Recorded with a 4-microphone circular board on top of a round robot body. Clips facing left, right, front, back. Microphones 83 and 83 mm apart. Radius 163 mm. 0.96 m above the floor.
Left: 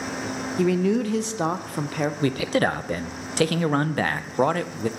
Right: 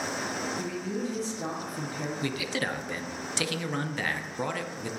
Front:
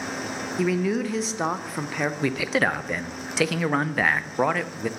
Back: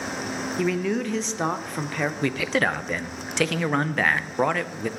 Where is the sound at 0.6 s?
85° left, 0.8 m.